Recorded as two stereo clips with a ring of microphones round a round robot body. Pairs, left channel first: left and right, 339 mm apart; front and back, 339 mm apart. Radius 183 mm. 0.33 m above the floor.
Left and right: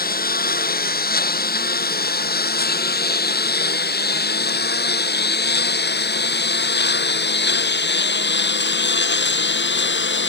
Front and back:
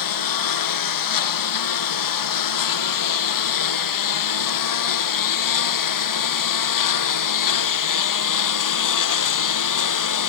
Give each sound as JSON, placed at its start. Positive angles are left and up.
{"t": 0.0, "sound": "a lawn mower", "azimuth_deg": 25}